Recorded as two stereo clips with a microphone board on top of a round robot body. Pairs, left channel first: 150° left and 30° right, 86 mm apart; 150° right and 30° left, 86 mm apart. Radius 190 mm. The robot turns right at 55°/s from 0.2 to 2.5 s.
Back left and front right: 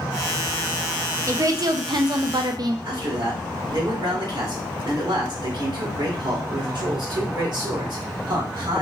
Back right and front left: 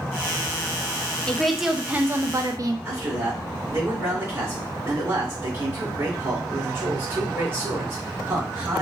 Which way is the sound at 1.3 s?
75° right.